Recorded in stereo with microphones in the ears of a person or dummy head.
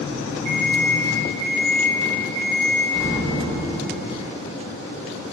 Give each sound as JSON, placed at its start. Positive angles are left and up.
{"t": 0.5, "sound": "an alarm clock", "side_deg": -35, "distance_m": 1.0}
{"t": 2.9, "sound": "an explosion", "side_deg": 25, "distance_m": 0.9}